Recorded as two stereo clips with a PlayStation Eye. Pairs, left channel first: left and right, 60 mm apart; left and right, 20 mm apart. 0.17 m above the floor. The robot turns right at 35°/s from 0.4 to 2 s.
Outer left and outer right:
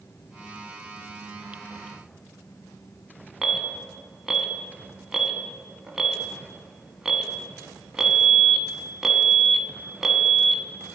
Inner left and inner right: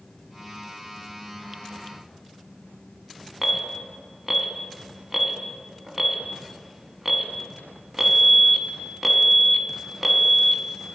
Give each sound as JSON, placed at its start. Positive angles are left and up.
{"t": 3.4, "sound": "an alarm", "side_deg": -5, "distance_m": 0.7}